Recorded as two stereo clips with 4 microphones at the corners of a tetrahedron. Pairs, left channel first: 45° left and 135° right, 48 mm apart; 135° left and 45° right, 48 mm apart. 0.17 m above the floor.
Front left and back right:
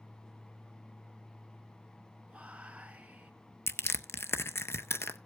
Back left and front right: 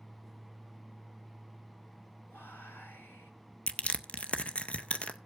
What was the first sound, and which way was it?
Whispering, 165° left.